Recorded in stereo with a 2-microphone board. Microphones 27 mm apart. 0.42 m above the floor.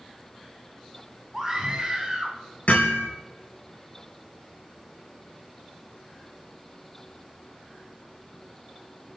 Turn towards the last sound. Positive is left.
turn(degrees=80)